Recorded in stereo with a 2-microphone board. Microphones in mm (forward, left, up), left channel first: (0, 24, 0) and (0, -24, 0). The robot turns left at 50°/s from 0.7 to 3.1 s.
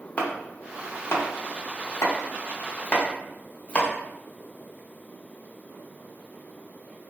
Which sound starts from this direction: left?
Chopping, at 0.2 s.